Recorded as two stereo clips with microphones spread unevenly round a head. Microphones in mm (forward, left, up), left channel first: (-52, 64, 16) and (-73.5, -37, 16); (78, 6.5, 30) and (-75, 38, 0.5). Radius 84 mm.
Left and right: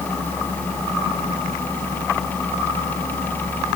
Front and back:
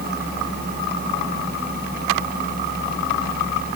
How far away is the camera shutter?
No camera shutter in this recording.